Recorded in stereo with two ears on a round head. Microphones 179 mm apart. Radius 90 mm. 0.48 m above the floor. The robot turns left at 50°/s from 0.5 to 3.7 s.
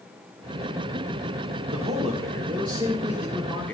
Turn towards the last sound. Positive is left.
turn(degrees=170)